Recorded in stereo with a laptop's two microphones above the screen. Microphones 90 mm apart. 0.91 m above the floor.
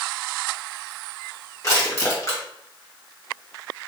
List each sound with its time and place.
1.6 s crushing: 35° left (ahead or behind), 1.3 m